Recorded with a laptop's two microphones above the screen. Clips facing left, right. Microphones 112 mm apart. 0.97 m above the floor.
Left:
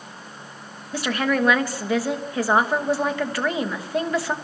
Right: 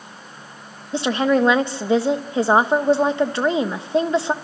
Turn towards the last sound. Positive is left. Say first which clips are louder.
# right 5 dB
turn(degrees=-25)  # may be behind; listen again after turning